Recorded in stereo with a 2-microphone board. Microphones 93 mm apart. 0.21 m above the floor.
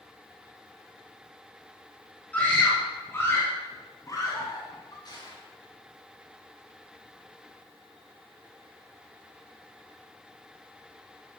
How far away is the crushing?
About 4 m.